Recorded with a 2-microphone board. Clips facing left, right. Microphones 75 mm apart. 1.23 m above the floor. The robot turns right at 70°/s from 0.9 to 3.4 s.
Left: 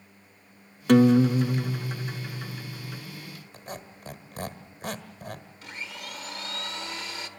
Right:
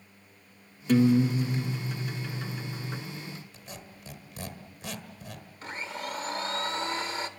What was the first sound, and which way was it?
A guitar, 65° left.